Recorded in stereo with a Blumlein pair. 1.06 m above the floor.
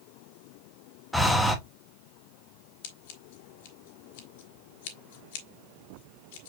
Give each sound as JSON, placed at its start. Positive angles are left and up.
{"t": 1.1, "sound": "breathing", "azimuth_deg": 5, "distance_m": 1.2}
{"t": 2.8, "sound": "scissors", "azimuth_deg": 50, "distance_m": 1.7}